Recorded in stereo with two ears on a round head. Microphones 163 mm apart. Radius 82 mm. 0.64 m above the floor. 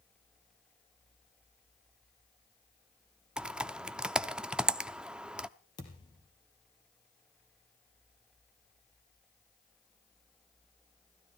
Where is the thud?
25° left (ahead or behind), 3 m.